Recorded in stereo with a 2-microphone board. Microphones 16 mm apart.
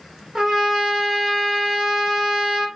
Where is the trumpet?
40° right (ahead or behind), 1.1 m.